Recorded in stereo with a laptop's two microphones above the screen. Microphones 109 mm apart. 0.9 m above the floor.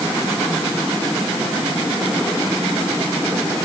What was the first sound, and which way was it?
Only background noise.